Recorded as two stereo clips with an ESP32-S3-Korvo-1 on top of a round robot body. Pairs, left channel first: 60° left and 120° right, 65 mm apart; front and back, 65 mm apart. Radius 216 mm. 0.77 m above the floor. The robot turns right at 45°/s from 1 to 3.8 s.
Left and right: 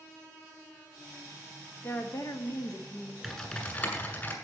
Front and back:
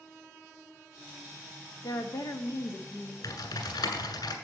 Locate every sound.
1.8 s a woman speaking: 5° left, 1.4 m; by 3.1 s 65° left, 1.4 m
3.2 s typing on a keyboard: 25° right, 1.7 m; by 4.3 s straight ahead, 1.7 m